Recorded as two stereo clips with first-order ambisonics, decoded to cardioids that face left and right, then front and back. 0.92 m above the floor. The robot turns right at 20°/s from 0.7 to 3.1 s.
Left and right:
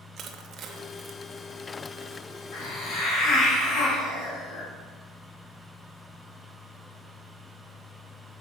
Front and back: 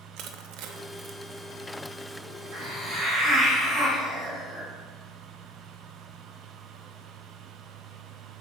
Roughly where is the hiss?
Behind left.